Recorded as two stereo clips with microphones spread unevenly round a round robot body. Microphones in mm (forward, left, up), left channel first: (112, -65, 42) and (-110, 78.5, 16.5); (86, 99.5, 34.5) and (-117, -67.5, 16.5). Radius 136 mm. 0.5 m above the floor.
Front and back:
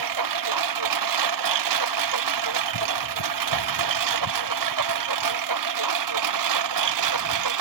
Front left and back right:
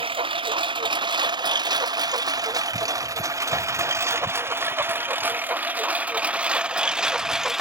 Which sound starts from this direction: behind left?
A lawn mower, at 0.0 s.